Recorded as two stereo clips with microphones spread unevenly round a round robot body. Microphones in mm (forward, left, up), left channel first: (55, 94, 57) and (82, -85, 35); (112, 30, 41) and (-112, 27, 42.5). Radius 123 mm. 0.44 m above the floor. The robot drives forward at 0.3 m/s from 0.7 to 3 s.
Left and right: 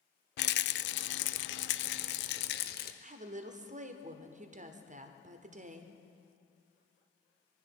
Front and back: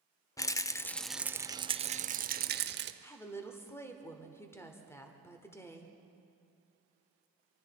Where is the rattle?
75° left, 0.5 m; by 2.9 s 145° left, 0.7 m.